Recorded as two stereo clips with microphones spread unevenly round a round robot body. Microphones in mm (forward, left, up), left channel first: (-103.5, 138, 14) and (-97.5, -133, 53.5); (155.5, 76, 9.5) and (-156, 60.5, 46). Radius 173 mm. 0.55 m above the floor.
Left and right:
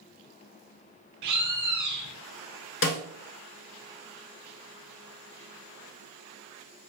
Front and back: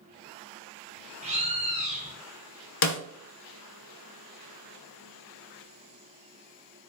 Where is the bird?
105° right, 0.8 m.